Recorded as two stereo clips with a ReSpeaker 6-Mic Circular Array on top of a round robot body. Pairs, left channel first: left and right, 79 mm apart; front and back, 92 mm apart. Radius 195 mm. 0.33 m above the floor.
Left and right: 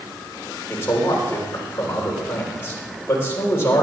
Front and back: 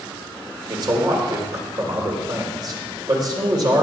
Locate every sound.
0.7 s a man speaking: 145° left, 3 m